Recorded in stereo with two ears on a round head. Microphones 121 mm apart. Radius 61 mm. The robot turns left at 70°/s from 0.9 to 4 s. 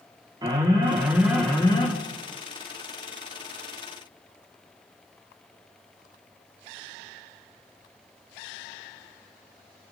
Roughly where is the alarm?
Behind right.